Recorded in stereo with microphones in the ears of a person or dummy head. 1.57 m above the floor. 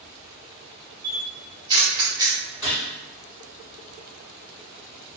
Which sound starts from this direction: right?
A camera shutter, at 1.0 s.